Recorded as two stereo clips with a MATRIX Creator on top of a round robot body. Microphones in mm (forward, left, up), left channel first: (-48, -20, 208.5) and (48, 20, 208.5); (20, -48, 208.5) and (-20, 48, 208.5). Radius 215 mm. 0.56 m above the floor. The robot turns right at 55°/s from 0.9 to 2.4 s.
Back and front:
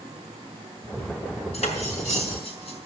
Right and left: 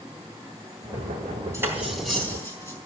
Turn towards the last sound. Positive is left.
turn(degrees=-135)